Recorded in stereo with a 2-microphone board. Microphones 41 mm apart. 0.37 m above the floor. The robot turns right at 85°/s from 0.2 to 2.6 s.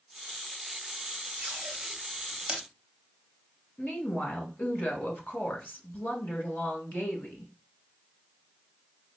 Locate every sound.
1.4 s tape being pulled: 45° right (ahead or behind), 0.8 m; by 2.6 s 20° right (ahead or behind), 0.8 m
3.8 s a woman speaking: 50° left (ahead or behind), 1.7 m